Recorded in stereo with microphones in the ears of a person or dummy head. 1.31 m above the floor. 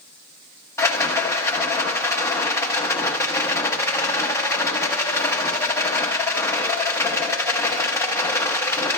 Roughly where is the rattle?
Centre.